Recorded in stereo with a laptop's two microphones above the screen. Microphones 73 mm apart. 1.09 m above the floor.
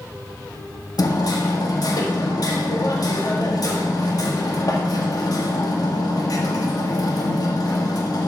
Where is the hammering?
60° left (ahead or behind), 2.0 m.